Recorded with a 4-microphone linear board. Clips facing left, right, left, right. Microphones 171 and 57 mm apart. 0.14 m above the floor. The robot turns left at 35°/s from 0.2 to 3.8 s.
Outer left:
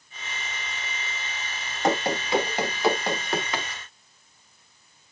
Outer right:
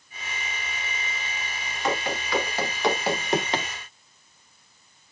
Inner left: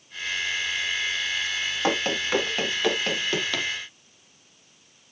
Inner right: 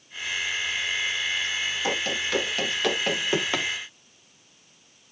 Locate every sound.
1.8 s running footsteps: 45° left (ahead or behind), 2.5 m; by 3.7 s 35° right (ahead or behind), 1.7 m